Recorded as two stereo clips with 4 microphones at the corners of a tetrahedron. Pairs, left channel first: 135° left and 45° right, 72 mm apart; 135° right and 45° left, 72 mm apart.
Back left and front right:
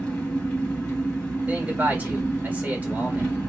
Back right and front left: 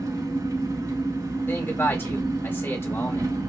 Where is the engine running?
60° left, 2 m.